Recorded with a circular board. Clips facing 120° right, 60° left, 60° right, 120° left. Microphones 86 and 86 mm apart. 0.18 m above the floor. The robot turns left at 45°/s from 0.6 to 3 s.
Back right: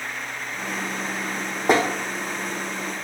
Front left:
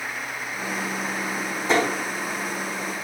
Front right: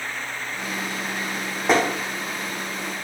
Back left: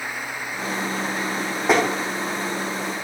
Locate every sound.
1.7 s tapping: 150° right, 4 m; by 1.8 s 155° right, 4 m